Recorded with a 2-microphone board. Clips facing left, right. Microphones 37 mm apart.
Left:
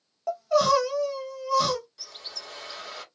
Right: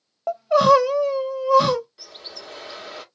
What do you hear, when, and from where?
0.3 s crying: 25° right (ahead or behind), 0.6 m
2.0 s a bird: 15° right (ahead or behind), 1.1 m